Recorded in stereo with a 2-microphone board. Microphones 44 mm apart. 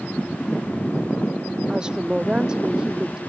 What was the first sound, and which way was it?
A woman speaking, 15° right (ahead or behind).